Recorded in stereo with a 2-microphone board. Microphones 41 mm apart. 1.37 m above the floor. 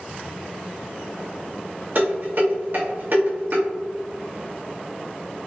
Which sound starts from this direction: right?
Dishes clattering, at 1.9 s.